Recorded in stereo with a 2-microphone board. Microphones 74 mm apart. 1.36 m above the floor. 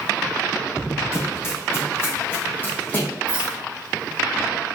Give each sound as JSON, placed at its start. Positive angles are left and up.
{"t": 1.1, "sound": "running footsteps", "side_deg": 35, "distance_m": 4.5}
{"t": 3.3, "sound": "a rattle", "side_deg": -15, "distance_m": 2.0}